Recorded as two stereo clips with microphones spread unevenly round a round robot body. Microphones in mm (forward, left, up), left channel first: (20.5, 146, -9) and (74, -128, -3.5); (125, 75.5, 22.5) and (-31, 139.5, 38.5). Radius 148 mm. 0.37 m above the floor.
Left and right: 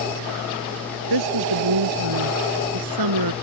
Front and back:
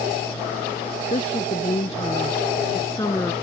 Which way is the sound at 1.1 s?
90° right.